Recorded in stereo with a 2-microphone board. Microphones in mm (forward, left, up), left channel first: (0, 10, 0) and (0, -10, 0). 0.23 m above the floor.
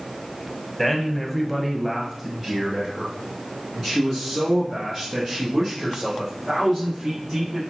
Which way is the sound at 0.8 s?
5° left (ahead or behind).